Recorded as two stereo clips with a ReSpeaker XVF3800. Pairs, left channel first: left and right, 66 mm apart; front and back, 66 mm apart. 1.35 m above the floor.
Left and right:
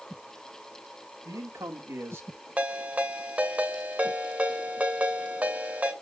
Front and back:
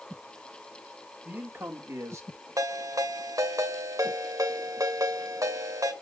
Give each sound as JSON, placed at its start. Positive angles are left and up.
{"t": 1.2, "sound": "a man speaking", "azimuth_deg": -120, "distance_m": 3.0}
{"t": 2.6, "sound": "a ringtone", "azimuth_deg": -155, "distance_m": 2.0}